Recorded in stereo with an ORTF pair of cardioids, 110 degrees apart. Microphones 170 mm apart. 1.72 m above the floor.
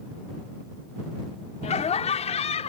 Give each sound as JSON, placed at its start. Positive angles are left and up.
{"t": 1.6, "sound": "laughter", "azimuth_deg": 40}